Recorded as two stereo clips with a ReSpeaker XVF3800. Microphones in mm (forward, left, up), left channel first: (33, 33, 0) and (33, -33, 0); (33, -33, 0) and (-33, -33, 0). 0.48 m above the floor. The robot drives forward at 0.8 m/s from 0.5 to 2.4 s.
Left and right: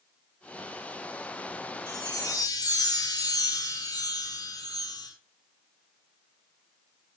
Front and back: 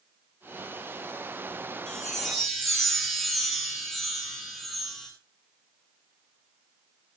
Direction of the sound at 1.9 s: 85° left.